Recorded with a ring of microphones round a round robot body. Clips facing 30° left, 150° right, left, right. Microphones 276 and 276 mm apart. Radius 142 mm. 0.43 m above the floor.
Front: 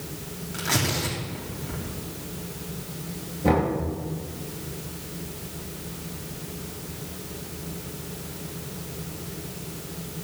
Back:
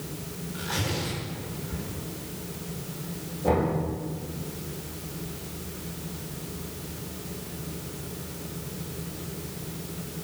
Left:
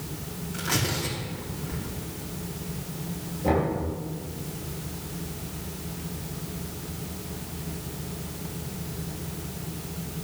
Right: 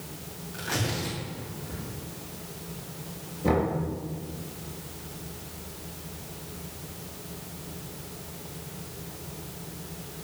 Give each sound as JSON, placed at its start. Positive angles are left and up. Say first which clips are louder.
{"t": 0.5, "sound": "tearing paper", "louder": "front 4 dB, left 1 dB", "azimuth_deg": 15, "distance_m": 6.0}
{"t": 3.4, "sound": "knocking", "louder": "front 2 dB, even", "azimuth_deg": -25, "distance_m": 7.0}